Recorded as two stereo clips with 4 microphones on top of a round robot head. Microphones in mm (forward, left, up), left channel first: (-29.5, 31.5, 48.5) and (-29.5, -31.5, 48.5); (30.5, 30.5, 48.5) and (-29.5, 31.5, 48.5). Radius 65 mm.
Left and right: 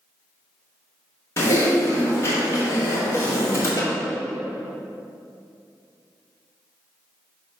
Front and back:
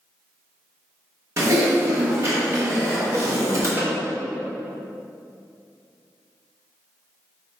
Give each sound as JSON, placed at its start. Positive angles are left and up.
{"t": 1.4, "sound": "typing on a keyboard", "azimuth_deg": 135, "distance_m": 1.9}
{"t": 3.8, "sound": "a snare drum", "azimuth_deg": 125, "distance_m": 2.0}